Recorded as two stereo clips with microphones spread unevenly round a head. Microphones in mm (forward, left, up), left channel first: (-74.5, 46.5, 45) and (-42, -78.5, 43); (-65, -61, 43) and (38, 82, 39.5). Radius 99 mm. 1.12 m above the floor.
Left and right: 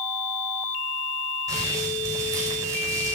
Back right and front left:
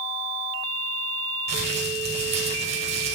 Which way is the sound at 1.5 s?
5° right.